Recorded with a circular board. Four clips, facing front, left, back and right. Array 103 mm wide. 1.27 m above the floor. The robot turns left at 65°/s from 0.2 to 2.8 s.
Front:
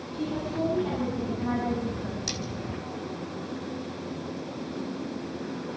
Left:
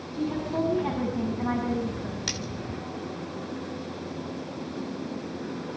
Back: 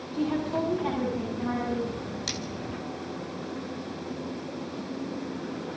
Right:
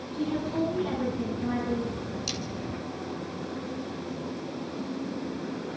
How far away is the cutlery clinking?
About 3 m.